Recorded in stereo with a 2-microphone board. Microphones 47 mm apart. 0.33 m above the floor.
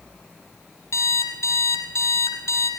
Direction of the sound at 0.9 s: 85° left.